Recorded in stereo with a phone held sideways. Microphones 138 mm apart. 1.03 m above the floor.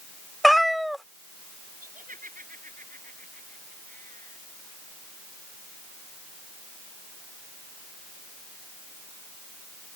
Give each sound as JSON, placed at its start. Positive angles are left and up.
{"t": 0.4, "sound": "a cat meowing", "side_deg": 0}
{"t": 1.8, "sound": "laughter", "side_deg": -85}